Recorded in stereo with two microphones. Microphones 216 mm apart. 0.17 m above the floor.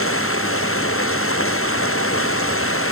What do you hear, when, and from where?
0.0 s running water: 85° left